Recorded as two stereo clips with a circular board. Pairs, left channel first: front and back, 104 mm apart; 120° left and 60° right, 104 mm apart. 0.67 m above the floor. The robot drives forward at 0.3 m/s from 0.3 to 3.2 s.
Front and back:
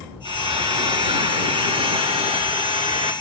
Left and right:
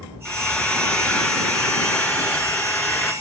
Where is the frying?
160° right, 2.5 m; by 3.1 s 165° right, 3.5 m.